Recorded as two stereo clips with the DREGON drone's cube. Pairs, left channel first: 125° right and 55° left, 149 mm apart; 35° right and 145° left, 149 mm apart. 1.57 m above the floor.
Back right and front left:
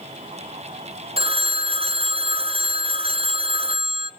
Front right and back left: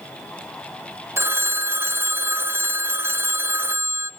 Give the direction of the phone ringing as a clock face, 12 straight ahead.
9 o'clock.